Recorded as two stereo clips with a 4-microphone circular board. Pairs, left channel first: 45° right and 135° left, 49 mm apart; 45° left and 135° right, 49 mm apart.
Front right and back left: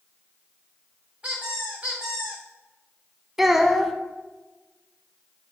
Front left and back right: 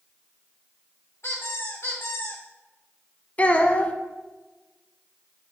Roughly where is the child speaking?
Ahead left.